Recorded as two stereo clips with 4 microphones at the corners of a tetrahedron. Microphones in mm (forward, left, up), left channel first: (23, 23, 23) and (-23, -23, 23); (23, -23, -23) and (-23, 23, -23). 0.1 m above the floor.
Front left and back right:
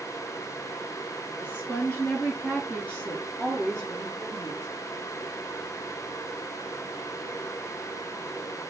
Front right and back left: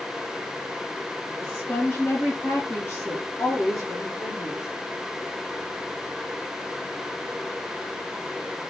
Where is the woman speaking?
10° left, 2.0 m; by 4.7 s 45° right, 2.5 m.